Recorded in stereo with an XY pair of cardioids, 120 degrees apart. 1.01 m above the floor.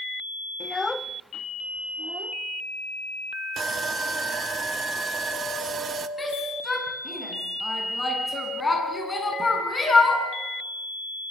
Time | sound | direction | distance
0.6 | a child speaking | 35° left | 0.8 m
3.6 | sawing | 40° right | 1.2 m
6.2 | a shout | 20° left | 8.5 m